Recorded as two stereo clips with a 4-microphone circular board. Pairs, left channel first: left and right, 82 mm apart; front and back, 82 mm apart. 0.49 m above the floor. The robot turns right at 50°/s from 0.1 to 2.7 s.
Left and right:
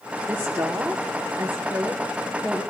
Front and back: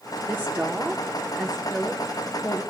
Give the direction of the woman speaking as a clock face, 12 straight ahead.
5 o'clock.